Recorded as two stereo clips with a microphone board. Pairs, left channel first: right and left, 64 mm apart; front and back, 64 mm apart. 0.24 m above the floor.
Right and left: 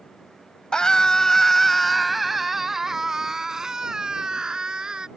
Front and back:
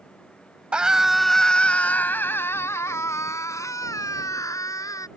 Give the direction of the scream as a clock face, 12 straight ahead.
5 o'clock.